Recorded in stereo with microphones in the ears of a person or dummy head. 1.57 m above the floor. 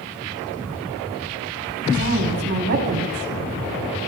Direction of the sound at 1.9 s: 55° right (ahead or behind).